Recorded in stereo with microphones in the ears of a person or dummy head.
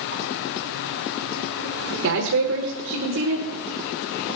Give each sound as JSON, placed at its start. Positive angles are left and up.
{"t": 2.0, "sound": "a man speaking", "side_deg": -50, "distance_m": 1.3}